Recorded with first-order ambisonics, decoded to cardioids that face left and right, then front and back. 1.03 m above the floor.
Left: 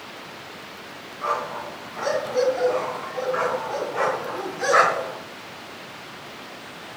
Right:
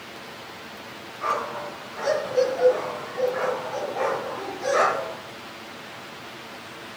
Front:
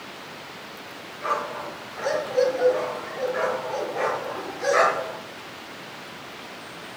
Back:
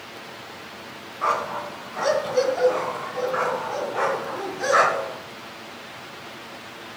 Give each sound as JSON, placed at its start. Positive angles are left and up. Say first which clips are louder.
{"t": 1.2, "sound": "a dog barking", "louder": "even, back 3 dB", "azimuth_deg": 180, "distance_m": 3.0}